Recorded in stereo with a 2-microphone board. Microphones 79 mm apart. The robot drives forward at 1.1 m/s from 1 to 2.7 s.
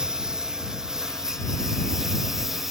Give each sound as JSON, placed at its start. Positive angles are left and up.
{"t": 0.0, "sound": "a lawn mower", "side_deg": -10}